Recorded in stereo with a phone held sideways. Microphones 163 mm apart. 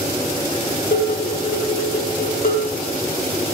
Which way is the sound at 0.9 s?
65° left (ahead or behind).